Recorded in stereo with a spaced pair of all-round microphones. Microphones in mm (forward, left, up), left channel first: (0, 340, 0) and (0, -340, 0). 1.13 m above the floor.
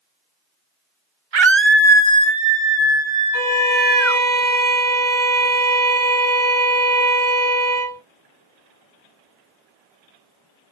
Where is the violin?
30° left (ahead or behind), 1.3 m.